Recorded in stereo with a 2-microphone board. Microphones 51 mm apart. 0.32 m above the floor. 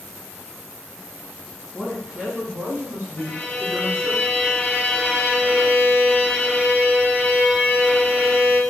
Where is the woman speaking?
10° right (ahead or behind), 2.5 m; by 4.2 s 50° right (ahead or behind), 3 m.